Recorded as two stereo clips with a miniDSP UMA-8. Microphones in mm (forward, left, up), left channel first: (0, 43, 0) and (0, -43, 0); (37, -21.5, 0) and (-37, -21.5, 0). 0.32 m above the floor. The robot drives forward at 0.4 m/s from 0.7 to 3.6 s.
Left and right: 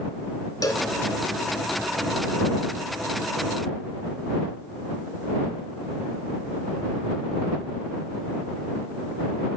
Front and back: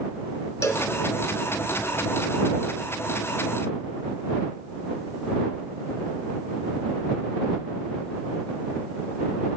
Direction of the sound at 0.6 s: 45° left.